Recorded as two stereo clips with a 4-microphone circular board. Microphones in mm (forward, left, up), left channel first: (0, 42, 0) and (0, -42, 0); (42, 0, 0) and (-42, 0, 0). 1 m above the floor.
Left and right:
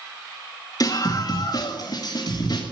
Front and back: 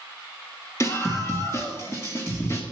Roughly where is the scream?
Ahead left.